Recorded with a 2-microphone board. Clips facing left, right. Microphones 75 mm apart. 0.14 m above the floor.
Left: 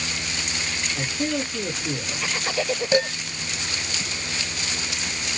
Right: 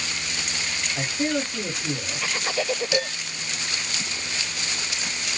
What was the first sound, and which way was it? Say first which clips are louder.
A man speaking: right 1 dB; 55° right (ahead or behind).